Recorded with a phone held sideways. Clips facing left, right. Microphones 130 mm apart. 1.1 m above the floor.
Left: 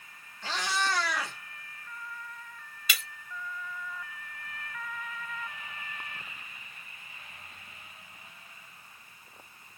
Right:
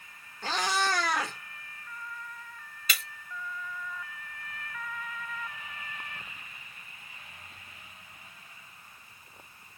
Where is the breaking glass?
40° right (ahead or behind), 3 m.